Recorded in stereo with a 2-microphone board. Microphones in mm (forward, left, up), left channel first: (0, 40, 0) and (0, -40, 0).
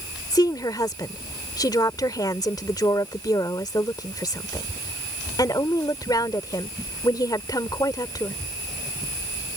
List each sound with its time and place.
0.3 s a woman speaking: 55° left (ahead or behind)